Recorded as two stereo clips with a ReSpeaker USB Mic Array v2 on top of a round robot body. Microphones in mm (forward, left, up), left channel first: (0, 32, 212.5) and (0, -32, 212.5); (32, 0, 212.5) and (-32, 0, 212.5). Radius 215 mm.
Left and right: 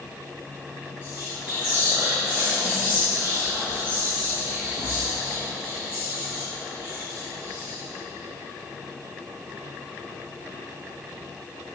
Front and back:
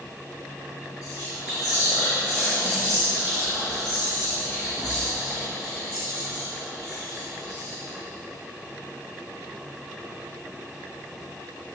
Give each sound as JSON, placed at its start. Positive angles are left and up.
{"t": 1.0, "sound": "whispering", "azimuth_deg": -25, "distance_m": 3.5}